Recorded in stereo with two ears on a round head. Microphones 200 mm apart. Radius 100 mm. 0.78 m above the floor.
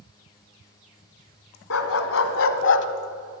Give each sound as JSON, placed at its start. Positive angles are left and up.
{"t": 1.7, "sound": "a dog barking", "side_deg": 65, "distance_m": 1.9}